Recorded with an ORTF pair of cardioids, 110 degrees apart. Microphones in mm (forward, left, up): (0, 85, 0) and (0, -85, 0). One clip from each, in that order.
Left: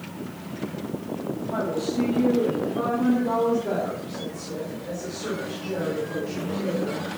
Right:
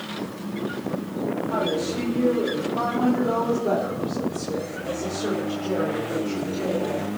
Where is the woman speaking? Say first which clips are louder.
Right 1 dB; 60° right, 5.5 m; by 7.1 s 30° right, 4 m.